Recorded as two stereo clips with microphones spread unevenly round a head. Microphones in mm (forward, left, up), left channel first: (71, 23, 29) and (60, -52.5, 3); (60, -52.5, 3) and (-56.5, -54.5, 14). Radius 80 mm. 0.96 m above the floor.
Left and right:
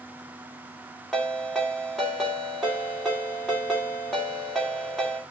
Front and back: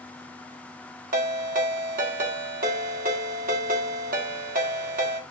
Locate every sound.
1.1 s a ringtone: 170° left, 1.6 m